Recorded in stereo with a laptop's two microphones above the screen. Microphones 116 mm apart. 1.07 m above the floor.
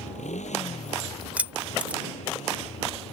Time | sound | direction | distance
0.0 | a motorcycle | 85° left | ?
1.4 | keys jangling | 10° right (ahead or behind) | ?